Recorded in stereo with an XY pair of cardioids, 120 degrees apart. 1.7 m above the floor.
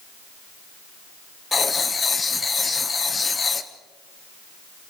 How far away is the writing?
About 1.4 m.